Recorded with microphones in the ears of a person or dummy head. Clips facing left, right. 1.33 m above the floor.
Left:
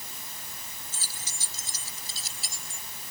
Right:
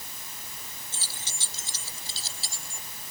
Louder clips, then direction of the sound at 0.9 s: Right 1 dB; 20° right (ahead or behind).